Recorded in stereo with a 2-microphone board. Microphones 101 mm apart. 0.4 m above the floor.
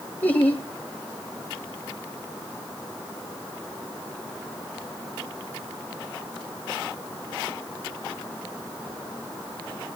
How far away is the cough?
I don't hear a cough.